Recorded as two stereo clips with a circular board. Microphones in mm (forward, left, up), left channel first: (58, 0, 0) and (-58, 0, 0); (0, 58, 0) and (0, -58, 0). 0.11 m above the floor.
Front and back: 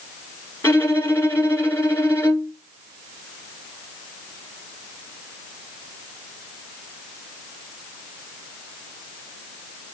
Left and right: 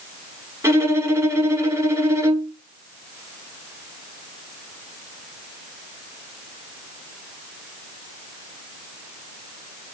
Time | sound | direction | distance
0.6 | a violin | 50° right | 1.1 m